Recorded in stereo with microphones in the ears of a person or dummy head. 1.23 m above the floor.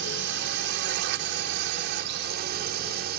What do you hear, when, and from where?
0.0 s a drone: 60° right (ahead or behind); by 3.2 s 55° right (ahead or behind)